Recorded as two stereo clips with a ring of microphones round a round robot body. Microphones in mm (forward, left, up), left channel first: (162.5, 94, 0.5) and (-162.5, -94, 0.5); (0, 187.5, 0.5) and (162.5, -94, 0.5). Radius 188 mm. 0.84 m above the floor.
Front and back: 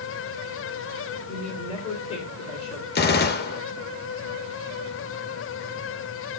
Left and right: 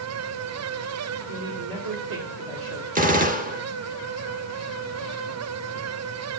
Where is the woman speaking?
45° right, 3.5 m.